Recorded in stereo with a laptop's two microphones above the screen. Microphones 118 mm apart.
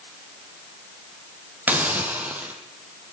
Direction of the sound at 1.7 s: 15° right (ahead or behind).